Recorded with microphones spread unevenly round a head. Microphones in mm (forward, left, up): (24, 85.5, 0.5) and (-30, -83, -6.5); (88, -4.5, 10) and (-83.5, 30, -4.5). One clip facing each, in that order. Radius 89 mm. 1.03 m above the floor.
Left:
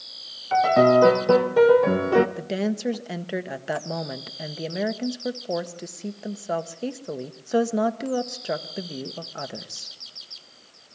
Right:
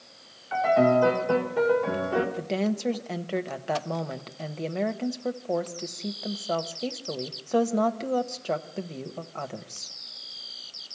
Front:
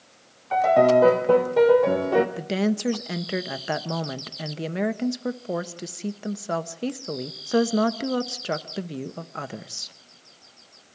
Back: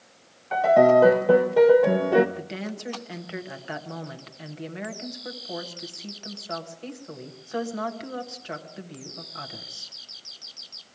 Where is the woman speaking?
5° right, 1.3 m.